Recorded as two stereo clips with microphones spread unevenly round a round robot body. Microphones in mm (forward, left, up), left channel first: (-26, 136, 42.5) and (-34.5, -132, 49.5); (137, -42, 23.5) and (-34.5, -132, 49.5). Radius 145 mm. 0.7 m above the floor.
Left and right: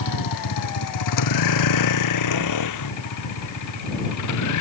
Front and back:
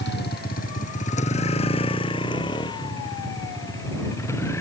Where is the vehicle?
80° left; by 4.6 s 110° left.